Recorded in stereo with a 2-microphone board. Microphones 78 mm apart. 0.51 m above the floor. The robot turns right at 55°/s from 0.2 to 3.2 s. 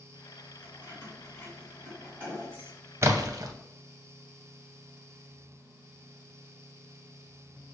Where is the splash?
35° right (ahead or behind), 0.5 m; by 3.5 s 45° right (ahead or behind), 0.5 m.